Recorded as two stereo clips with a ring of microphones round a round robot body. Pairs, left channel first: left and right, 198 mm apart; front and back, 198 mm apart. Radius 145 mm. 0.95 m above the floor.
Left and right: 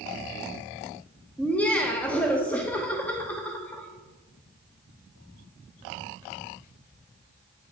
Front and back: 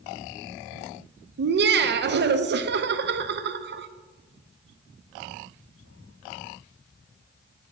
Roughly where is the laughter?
Behind.